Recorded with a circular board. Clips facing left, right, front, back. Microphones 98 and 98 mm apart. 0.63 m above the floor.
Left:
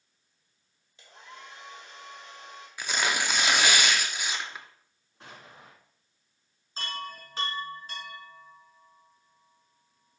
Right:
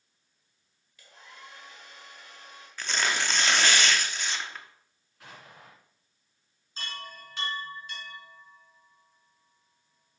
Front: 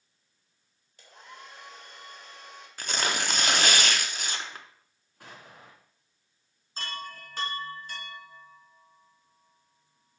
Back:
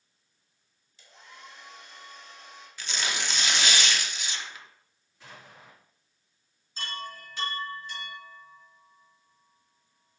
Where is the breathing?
I don't hear breathing.